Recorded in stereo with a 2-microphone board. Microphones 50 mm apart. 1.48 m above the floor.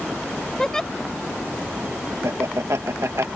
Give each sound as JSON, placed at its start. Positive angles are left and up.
{"t": 0.6, "sound": "a giggle", "side_deg": 10}
{"t": 2.2, "sound": "laughter", "side_deg": -75}